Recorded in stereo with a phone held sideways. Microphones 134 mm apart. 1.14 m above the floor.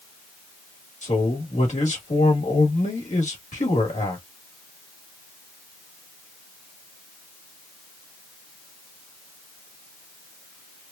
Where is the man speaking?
60° left (ahead or behind), 1.6 m.